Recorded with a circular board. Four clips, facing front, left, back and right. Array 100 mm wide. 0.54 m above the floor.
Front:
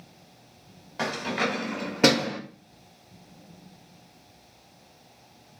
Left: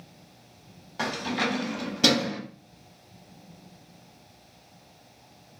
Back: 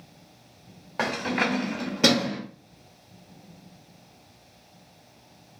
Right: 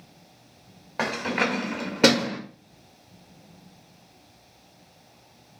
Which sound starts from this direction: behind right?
Keys jangling, at 1.0 s.